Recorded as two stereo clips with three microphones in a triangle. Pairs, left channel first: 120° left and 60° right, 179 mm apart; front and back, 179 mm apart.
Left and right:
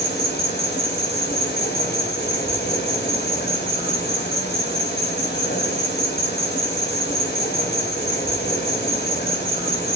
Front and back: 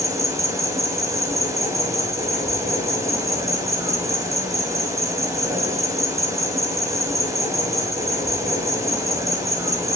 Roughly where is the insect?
Left.